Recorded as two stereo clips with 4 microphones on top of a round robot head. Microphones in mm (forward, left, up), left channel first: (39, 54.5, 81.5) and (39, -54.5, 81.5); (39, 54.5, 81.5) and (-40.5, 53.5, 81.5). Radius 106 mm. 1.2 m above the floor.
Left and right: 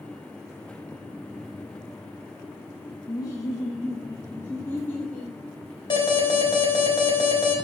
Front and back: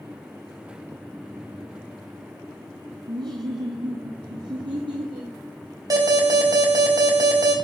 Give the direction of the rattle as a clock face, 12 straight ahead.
I don't hear a rattle.